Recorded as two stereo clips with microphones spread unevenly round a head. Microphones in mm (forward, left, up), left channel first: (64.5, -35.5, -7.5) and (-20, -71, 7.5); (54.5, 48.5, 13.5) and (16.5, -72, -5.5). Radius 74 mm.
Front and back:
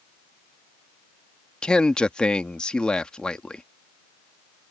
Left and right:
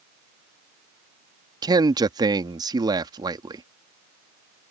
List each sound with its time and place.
1.6 s a man speaking: 55° right